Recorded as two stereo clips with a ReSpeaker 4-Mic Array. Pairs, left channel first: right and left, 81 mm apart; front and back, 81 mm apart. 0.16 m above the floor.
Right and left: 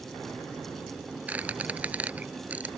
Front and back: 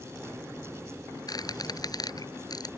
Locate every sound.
1.3 s a squeak: 20° left